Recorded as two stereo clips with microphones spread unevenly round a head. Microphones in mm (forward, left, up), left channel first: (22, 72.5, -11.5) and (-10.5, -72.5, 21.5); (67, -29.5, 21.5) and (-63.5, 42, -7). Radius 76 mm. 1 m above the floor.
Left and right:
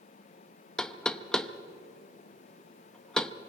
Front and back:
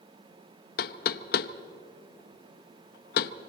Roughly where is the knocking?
Ahead.